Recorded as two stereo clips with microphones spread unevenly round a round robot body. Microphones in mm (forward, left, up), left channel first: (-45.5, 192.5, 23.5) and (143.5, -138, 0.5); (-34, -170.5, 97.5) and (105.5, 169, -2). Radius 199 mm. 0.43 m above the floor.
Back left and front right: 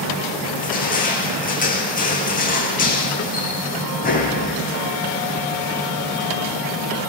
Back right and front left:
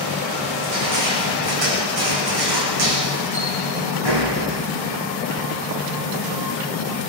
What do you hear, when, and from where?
0.6 s crushing: 50° left, 8.5 m